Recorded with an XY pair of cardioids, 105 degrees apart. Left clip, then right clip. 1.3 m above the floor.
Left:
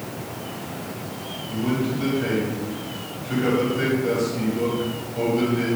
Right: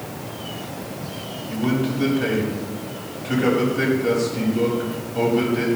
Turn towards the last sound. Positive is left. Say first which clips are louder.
# right 2 dB
turn(degrees=-35)